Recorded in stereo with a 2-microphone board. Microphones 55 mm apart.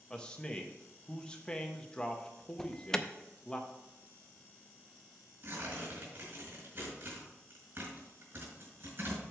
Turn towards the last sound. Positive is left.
turn(degrees=-50)  # may be behind; listen again after turning